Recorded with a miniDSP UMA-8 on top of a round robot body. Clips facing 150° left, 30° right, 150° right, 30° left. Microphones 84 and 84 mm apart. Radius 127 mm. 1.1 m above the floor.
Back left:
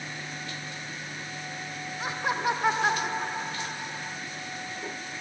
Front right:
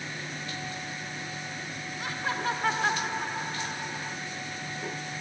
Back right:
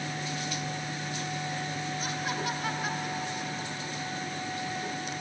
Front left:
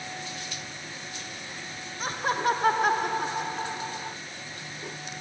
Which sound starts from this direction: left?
Laughter, at 2.0 s.